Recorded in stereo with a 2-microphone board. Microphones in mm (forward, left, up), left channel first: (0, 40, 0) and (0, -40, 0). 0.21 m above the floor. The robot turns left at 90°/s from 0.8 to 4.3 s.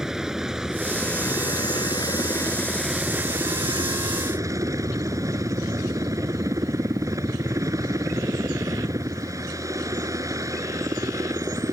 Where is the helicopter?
170° right; by 11.7 s 125° right.